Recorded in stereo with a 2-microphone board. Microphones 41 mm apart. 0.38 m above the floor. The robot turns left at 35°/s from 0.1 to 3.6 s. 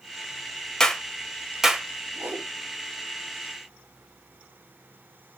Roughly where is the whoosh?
Right.